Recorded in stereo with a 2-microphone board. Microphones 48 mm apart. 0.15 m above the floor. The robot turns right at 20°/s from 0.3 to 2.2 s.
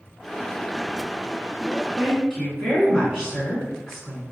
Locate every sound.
2.0 s a woman speaking: 5° right (ahead or behind), 1.6 m; by 4.2 s 10° right (ahead or behind), 1.6 m